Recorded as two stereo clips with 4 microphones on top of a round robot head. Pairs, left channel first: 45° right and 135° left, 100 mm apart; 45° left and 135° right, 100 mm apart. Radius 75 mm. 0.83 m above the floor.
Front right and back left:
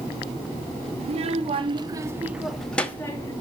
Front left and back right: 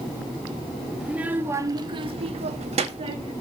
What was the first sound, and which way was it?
A child speaking, 145° left.